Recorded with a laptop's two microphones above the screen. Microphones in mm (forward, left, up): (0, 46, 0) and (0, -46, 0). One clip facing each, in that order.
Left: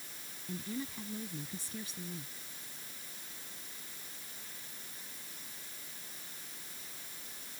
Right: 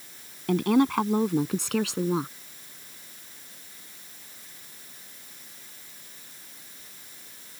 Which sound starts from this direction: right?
A woman speaking, at 0.5 s.